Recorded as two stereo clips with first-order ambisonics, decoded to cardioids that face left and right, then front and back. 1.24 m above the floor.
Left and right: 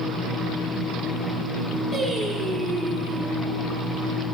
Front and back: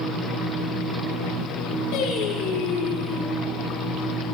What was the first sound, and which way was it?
Singing, 5° right.